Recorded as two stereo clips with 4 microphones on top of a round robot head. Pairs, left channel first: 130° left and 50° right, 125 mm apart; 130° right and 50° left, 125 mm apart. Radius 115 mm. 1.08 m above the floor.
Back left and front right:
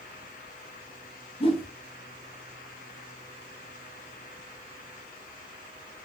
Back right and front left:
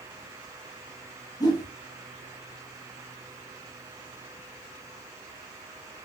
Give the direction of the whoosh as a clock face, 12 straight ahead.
6 o'clock.